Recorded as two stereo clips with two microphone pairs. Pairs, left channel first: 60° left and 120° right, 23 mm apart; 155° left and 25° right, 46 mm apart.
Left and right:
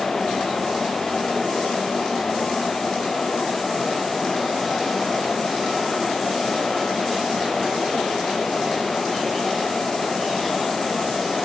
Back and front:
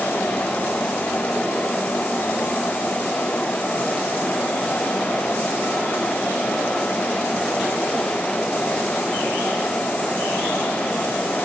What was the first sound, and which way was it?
Only background noise.